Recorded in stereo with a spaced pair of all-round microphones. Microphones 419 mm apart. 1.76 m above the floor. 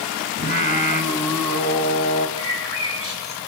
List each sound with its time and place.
0.4 s singing: 55° right (ahead or behind), 2.5 m
2.4 s a bird: 70° left (ahead or behind), 7.5 m